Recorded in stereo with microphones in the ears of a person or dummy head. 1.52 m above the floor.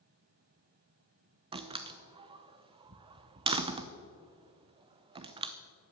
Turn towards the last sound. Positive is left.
turn(degrees=-25)  # may be behind; listen again after turning